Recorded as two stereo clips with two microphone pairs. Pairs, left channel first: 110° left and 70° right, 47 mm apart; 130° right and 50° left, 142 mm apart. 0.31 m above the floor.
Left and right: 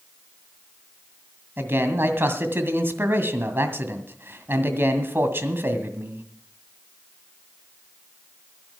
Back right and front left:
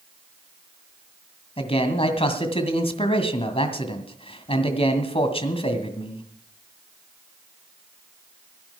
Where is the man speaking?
95° right, 1.9 m.